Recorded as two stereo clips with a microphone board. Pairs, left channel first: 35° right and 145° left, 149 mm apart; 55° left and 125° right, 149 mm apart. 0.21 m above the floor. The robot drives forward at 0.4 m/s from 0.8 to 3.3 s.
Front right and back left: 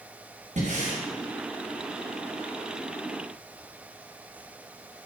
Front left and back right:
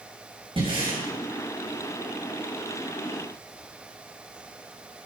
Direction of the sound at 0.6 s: Straight behind.